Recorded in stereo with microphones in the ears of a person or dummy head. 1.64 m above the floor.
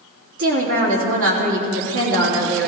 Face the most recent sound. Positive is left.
turn(degrees=-75)  # may be behind; listen again after turning